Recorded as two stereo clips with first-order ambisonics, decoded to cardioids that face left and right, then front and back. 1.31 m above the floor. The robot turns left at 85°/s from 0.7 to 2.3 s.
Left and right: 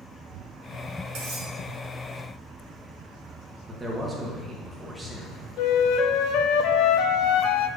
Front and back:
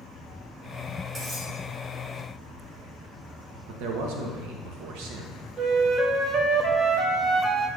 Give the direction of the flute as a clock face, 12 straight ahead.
8 o'clock.